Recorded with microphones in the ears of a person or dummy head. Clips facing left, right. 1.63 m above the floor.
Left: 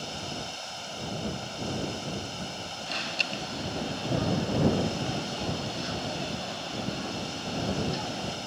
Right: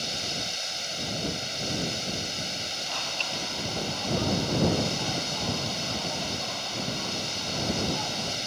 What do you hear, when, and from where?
0.0 s running water: 30° right (ahead or behind)
2.9 s an alarm: 20° left (ahead or behind)